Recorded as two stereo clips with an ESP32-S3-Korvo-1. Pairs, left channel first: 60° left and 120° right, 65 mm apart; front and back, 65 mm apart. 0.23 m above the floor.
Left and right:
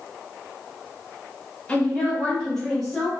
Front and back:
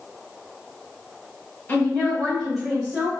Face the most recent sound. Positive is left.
turn(degrees=145)